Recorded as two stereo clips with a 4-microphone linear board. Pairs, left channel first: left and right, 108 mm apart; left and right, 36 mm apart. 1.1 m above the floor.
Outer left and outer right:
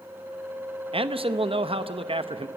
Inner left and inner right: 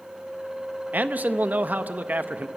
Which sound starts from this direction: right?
A man speaking, at 0.9 s.